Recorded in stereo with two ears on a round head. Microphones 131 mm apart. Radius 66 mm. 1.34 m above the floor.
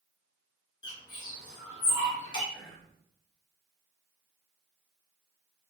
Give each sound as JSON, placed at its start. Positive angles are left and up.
{"t": 0.8, "sound": "a bird", "side_deg": 30, "distance_m": 0.9}
{"t": 2.5, "sound": "whispering", "side_deg": 10, "distance_m": 1.3}